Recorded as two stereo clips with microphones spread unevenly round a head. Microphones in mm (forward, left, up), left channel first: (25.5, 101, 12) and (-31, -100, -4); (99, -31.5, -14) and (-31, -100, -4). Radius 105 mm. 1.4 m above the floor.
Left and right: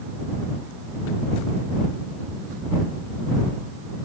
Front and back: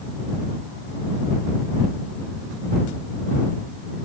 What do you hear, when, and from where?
Only background noise.